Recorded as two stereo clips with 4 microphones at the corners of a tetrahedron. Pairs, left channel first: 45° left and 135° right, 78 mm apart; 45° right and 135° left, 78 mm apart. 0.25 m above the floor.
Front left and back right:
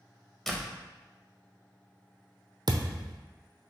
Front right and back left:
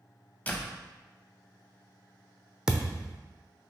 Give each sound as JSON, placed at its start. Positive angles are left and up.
{"t": 0.5, "sound": "a door slam", "azimuth_deg": -40, "distance_m": 0.7}
{"t": 2.7, "sound": "a thud", "azimuth_deg": -145, "distance_m": 0.6}